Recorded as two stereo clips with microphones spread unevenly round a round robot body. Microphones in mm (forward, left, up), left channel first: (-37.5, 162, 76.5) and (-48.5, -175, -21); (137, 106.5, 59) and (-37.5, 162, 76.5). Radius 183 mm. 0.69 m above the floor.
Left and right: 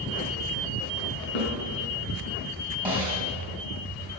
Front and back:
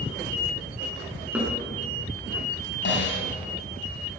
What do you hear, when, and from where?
1.4 s a snare drum: 80° left, 4.5 m
2.9 s a snare drum: 5° right, 3 m